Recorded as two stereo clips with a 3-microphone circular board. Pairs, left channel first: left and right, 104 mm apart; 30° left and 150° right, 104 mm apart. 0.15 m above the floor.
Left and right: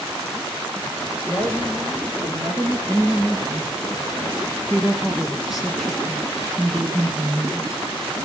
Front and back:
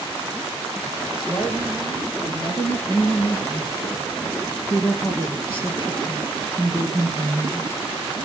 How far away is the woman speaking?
About 7.5 m.